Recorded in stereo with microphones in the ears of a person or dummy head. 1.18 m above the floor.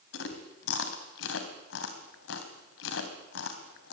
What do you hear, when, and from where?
0.1 s chewing: 80° left, 3.5 m